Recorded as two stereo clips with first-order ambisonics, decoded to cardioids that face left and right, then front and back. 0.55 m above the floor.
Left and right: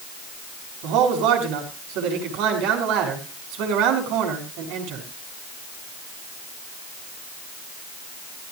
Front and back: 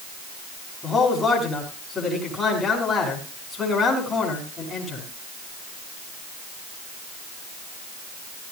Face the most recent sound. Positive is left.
turn(degrees=-80)